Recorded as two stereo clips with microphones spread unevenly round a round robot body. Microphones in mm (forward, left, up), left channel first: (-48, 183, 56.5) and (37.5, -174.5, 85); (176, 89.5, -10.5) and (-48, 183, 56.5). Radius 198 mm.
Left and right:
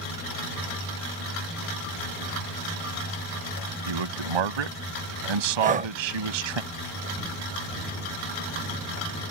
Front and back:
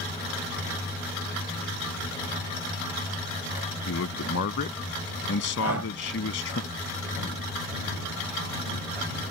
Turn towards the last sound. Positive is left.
turn(degrees=-145)